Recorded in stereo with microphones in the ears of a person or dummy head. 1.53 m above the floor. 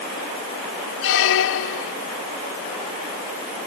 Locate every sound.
1.0 s a squeak: 70° left (ahead or behind)